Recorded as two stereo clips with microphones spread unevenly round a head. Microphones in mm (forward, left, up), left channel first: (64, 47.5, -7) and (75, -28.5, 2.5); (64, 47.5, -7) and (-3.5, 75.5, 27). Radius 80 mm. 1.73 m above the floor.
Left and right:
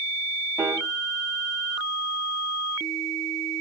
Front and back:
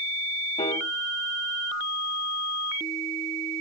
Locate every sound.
0.6 s a piano: 30° right, 1.7 m